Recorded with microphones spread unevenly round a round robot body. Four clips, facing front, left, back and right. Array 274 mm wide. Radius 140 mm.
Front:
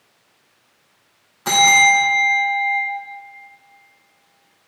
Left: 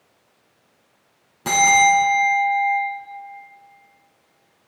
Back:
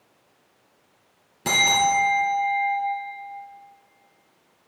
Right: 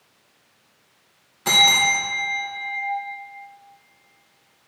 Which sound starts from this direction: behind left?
A bell, at 1.4 s.